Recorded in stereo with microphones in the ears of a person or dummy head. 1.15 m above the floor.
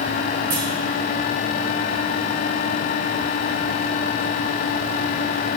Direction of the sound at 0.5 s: 25° right (ahead or behind).